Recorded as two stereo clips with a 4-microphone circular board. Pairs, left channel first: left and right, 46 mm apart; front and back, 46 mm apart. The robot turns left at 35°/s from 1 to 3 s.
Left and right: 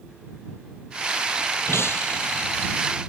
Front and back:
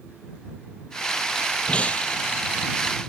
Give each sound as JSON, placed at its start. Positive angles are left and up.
{"t": 1.7, "sound": "breaking glass", "azimuth_deg": 65}